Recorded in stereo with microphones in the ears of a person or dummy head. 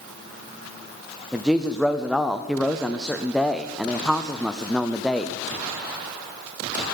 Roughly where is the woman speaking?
Centre.